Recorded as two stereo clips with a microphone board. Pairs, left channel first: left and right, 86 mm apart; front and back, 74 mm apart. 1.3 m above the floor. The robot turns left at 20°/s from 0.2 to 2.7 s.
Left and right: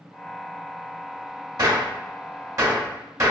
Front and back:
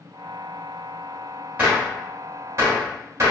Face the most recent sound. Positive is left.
turn(degrees=-135)